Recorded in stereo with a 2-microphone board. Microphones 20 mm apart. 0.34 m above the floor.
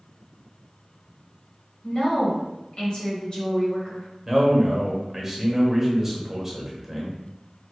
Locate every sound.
1.8 s a woman speaking: 45° left (ahead or behind), 1.7 m
4.3 s a man speaking: 15° right (ahead or behind), 1.0 m